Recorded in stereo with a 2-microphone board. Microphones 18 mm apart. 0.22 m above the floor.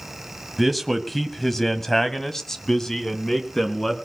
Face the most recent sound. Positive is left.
turn(degrees=25)  # may be behind; listen again after turning